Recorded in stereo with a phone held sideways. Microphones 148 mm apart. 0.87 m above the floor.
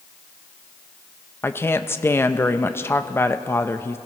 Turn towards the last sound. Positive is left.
turn(degrees=15)  # may be behind; listen again after turning